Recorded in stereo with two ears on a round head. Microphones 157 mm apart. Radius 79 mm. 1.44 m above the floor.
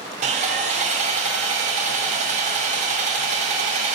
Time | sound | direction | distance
0.2 | sawing | 40° right (ahead or behind) | 0.9 m